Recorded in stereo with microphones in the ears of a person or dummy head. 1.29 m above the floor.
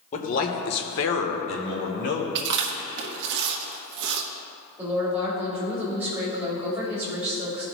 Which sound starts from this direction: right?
Chewing, at 2.4 s.